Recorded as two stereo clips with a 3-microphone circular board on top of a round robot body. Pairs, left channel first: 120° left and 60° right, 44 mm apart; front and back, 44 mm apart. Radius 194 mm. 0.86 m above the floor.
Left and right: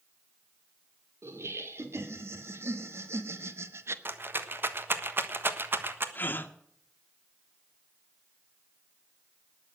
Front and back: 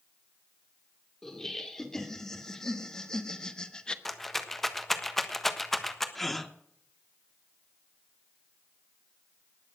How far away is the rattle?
About 1.6 m.